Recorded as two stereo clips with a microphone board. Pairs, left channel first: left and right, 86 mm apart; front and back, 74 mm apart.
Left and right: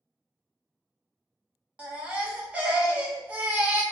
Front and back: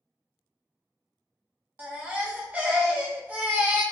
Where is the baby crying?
145° right, 0.7 m.